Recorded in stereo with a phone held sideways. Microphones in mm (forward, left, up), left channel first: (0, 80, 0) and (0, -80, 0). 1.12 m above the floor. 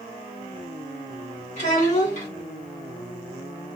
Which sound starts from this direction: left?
A child speaking, at 1.6 s.